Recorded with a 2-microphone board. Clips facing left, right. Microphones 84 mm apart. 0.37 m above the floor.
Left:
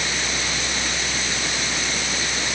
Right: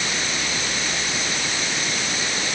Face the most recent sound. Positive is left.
No sound to turn to.